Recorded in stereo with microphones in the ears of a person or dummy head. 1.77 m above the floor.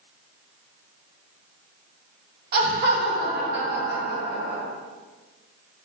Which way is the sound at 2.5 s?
55° right (ahead or behind).